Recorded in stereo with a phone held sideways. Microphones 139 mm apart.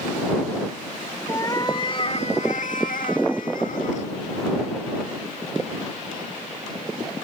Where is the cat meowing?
25° left (ahead or behind); by 4.1 s 60° left (ahead or behind).